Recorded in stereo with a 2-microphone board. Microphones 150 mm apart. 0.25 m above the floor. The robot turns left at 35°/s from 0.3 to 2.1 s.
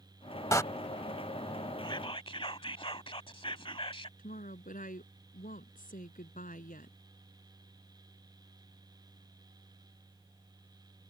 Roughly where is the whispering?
Left.